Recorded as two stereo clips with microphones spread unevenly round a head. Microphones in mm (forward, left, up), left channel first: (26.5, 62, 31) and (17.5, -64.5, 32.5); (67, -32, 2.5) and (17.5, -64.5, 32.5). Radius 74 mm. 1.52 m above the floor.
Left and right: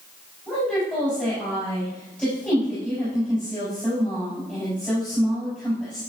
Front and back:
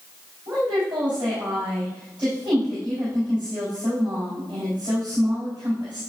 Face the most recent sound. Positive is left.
turn(degrees=165)